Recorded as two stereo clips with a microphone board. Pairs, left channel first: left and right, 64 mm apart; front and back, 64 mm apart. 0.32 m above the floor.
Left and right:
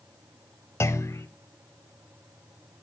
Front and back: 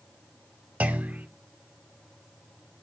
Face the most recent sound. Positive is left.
turn(degrees=125)